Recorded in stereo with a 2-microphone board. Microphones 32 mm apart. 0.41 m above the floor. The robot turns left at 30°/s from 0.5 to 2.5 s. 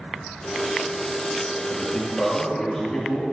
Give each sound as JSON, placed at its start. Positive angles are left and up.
{"t": 1.7, "sound": "a man speaking", "side_deg": 35, "distance_m": 7.0}